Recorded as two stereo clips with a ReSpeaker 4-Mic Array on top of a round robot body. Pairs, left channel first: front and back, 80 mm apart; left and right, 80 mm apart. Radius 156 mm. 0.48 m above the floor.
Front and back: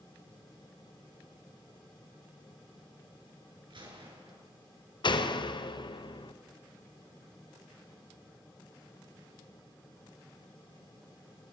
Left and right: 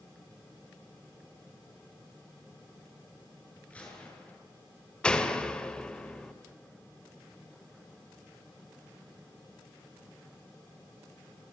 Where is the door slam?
10° left, 2.5 m.